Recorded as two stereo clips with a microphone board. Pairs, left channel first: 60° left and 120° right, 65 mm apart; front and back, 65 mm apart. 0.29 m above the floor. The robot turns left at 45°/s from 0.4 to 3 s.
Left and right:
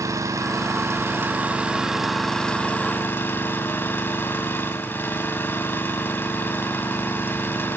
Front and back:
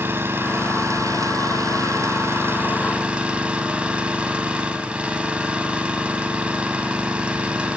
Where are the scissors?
No scissors in this recording.